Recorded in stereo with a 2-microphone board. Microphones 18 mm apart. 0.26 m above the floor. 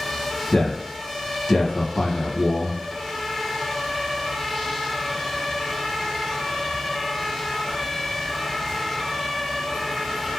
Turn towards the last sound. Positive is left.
turn(degrees=45)  # may be behind; listen again after turning